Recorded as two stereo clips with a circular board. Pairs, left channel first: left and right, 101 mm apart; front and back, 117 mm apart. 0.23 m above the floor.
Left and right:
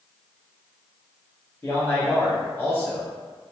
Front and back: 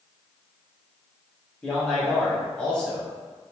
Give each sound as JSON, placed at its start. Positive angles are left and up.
{"t": 1.6, "sound": "a man speaking", "azimuth_deg": 65, "distance_m": 1.4}